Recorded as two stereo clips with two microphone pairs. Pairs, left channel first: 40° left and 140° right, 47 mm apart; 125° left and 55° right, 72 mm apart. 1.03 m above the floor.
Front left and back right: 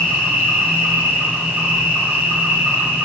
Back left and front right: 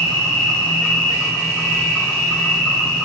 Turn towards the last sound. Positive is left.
turn(degrees=-155)